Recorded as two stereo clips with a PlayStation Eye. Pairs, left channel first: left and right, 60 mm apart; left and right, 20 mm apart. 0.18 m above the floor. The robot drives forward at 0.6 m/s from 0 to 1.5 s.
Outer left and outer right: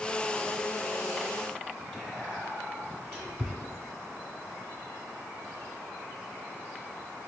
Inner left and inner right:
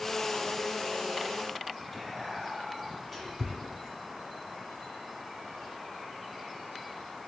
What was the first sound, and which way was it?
Whispering, 15° left (ahead or behind).